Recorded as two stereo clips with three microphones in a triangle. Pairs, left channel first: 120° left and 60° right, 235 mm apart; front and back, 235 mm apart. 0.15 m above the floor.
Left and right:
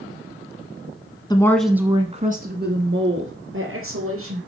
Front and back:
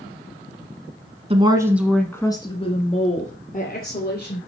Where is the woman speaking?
165° left, 1.2 m; by 4.4 s 45° right, 3.5 m.